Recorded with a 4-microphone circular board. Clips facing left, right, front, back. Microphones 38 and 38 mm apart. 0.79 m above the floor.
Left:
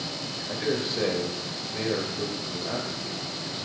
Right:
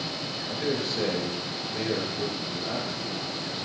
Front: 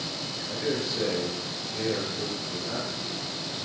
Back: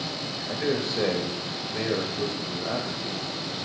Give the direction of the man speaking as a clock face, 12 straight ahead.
6 o'clock.